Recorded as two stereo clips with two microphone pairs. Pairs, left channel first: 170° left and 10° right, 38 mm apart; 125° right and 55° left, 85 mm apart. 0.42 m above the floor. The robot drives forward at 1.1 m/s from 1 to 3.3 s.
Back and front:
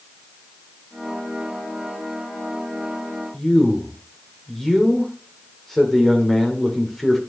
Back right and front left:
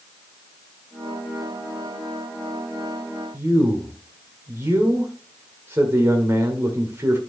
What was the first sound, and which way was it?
A man speaking, 95° left.